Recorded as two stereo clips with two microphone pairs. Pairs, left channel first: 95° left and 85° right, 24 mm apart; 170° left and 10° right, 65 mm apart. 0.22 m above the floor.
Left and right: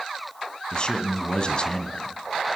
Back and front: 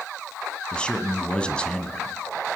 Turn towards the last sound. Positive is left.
turn(degrees=105)